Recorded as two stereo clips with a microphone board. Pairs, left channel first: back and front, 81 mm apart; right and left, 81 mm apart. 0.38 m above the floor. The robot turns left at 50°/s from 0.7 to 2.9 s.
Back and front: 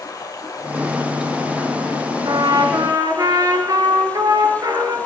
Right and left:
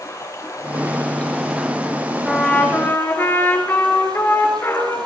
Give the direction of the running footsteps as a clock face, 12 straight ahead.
No running footsteps in this recording.